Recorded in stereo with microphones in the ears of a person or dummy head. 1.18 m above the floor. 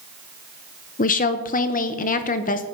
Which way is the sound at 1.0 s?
35° left (ahead or behind).